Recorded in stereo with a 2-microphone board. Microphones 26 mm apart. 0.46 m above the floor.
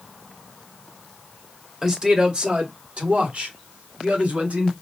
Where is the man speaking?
25° right (ahead or behind), 1.9 m; by 4.7 s 70° right (ahead or behind), 3.5 m.